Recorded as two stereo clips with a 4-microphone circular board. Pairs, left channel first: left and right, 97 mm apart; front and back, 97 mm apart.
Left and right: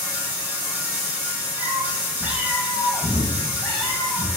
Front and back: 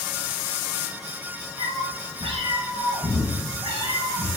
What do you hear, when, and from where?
1.6 s a cat meowing: 150° right, 3 m; by 4.3 s 170° left, 5.5 m